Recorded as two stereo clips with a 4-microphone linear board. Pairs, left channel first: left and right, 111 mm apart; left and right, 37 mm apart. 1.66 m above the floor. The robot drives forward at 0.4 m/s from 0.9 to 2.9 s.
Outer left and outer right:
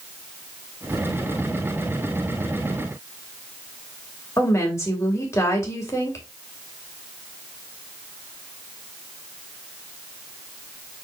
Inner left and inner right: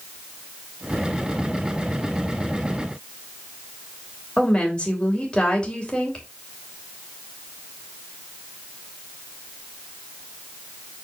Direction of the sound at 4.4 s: 25° left (ahead or behind).